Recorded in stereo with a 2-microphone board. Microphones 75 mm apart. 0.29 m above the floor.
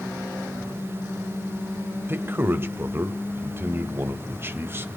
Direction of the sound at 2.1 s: 30° right (ahead or behind).